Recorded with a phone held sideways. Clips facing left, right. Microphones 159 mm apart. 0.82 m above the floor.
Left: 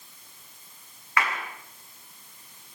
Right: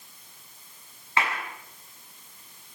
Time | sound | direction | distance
1.2 | a clap | 25° right (ahead or behind) | 8 m